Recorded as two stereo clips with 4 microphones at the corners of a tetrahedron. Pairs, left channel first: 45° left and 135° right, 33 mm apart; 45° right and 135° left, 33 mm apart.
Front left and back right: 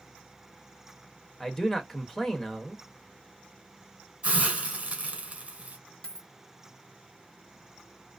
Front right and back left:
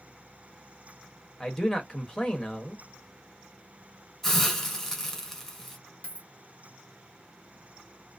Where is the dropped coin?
10° right, 0.8 m.